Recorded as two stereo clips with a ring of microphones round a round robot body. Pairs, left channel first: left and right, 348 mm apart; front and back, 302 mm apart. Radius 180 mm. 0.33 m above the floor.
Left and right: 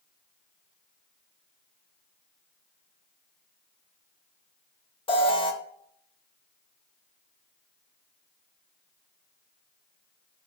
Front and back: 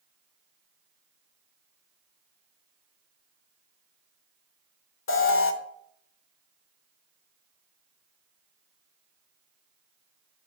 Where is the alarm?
20° left, 0.7 m.